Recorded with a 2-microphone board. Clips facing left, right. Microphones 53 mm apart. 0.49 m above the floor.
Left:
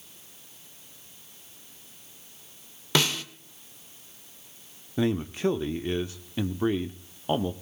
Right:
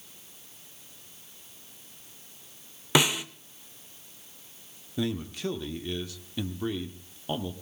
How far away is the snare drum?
About 0.9 m.